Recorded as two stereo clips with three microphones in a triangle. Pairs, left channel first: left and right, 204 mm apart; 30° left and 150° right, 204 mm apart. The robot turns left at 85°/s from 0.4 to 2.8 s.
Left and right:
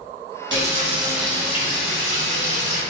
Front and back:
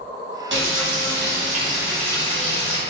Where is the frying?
120° right, 0.7 m; by 2.8 s 50° left, 0.7 m.